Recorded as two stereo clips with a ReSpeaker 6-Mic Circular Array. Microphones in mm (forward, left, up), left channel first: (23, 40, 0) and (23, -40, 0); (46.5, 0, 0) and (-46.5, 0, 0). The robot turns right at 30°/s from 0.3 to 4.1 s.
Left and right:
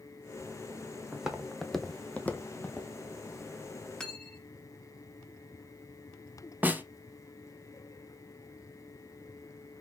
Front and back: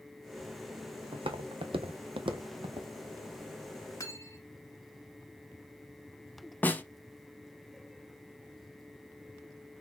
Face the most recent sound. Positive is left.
turn(degrees=-50)